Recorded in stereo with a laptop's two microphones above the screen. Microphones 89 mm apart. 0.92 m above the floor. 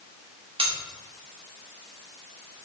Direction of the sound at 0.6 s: 90° right.